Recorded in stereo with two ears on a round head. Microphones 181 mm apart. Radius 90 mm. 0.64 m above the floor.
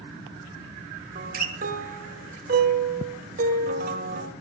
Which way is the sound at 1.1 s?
45° right (ahead or behind).